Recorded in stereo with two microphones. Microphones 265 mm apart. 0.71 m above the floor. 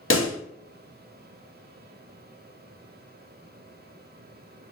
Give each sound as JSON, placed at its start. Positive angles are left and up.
{"t": 0.1, "sound": "a pop", "side_deg": 50, "distance_m": 0.9}